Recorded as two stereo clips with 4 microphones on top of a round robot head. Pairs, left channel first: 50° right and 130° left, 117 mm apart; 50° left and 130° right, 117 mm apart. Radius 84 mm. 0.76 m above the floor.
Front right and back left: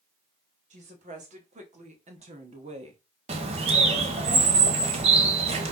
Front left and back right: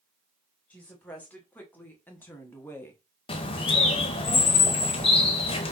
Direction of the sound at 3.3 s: 95° left.